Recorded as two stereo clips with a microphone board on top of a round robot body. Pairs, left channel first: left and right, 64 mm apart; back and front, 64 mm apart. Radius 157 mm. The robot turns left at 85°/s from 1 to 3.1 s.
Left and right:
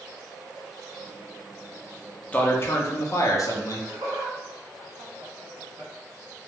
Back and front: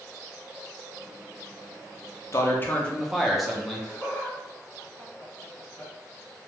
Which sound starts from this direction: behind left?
A man speaking, at 2.3 s.